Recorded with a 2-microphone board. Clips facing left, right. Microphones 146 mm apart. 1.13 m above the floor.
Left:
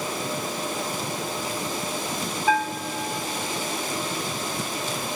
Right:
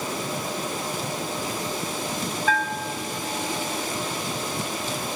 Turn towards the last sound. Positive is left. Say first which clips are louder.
# left 4 dB
turn(degrees=15)  # may be behind; listen again after turning